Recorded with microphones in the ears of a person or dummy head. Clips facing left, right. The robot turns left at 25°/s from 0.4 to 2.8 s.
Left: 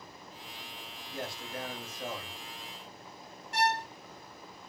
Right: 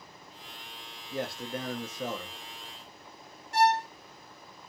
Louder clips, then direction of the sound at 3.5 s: Right 6 dB; 75° left (ahead or behind).